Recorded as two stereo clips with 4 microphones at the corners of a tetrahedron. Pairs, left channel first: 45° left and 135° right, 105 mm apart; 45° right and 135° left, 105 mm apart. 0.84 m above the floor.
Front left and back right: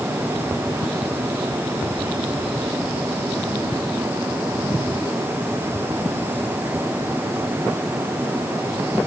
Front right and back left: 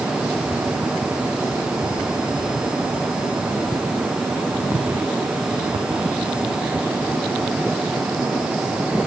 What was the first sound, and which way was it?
Only background noise.